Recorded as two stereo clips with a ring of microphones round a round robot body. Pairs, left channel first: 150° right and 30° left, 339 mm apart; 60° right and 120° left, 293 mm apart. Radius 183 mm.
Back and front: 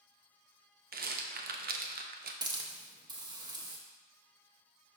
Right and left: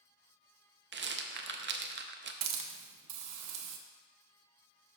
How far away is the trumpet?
No trumpet in this recording.